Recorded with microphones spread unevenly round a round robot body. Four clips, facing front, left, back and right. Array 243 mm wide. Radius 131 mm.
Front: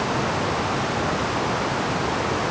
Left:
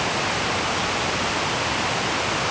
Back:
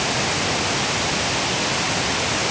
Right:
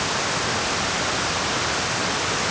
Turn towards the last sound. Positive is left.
No sound to turn to.